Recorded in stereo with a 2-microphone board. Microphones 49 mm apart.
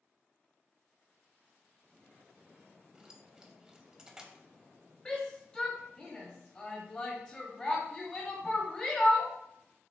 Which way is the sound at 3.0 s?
15° right (ahead or behind).